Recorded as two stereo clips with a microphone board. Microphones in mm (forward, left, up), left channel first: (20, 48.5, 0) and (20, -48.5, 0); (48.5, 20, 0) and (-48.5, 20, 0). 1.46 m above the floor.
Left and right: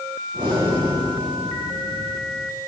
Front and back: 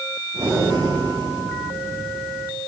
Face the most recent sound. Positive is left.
turn(degrees=-130)